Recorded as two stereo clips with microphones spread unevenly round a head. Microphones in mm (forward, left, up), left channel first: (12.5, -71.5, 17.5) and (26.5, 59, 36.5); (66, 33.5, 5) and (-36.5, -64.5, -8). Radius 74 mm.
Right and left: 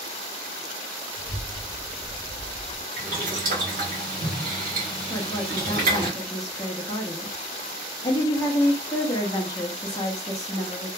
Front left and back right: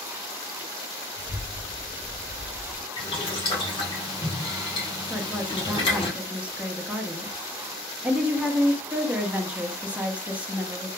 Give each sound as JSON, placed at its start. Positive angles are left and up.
{"t": 1.2, "sound": "a child speaking", "azimuth_deg": 45, "distance_m": 0.7}
{"t": 3.0, "sound": "boiling", "azimuth_deg": 95, "distance_m": 1.0}
{"t": 5.1, "sound": "a woman speaking", "azimuth_deg": -55, "distance_m": 0.5}